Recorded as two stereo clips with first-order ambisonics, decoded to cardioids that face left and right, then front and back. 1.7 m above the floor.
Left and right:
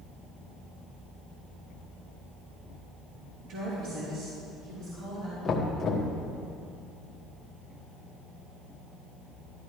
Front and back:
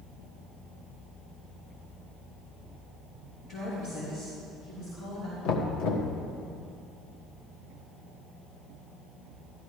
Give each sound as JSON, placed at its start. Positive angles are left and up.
{"t": 3.4, "sound": "a woman speaking", "azimuth_deg": -50, "distance_m": 3.0}
{"t": 5.5, "sound": "knocking", "azimuth_deg": 20, "distance_m": 1.4}